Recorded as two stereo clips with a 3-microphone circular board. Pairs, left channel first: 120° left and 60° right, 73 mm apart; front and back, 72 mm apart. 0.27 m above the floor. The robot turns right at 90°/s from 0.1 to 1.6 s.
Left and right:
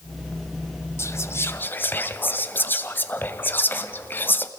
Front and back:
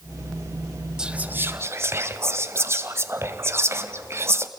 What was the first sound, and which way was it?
Whispering, 105° left.